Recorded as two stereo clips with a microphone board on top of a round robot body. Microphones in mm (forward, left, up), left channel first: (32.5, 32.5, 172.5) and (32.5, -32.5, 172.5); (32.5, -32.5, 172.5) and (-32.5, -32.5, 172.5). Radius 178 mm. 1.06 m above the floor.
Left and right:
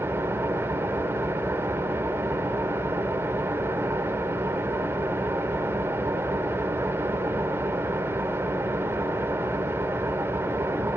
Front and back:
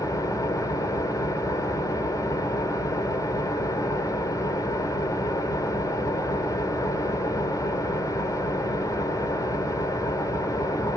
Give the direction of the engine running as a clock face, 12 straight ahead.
1 o'clock.